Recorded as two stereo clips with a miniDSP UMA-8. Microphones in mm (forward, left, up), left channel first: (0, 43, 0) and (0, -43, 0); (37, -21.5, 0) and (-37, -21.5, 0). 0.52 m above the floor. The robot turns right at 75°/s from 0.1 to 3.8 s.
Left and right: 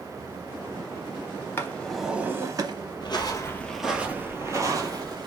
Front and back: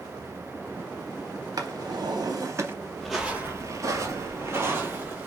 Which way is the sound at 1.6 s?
150° left.